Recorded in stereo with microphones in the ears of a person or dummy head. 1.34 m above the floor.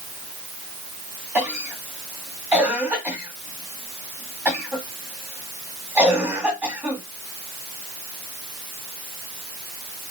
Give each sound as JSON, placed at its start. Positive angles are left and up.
{"t": 1.4, "sound": "a cough", "side_deg": -15, "distance_m": 2.5}